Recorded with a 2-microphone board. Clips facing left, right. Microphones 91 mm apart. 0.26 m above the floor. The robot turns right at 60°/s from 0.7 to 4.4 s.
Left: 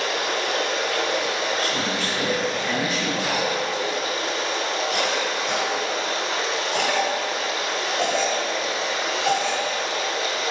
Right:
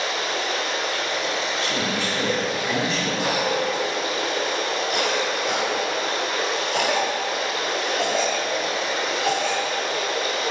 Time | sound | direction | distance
0.0 | running water | 75° left | 0.8 m
1.6 | a man speaking | 25° right (ahead or behind) | 1.0 m
3.2 | a cough | 20° right (ahead or behind) | 0.9 m